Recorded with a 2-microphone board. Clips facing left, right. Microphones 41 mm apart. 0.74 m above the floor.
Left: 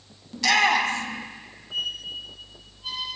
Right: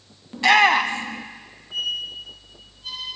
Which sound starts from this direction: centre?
A squeak, at 1.7 s.